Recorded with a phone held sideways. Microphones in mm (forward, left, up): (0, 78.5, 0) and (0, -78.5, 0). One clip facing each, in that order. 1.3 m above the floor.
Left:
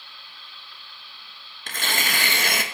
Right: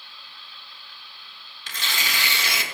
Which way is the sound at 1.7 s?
50° left (ahead or behind).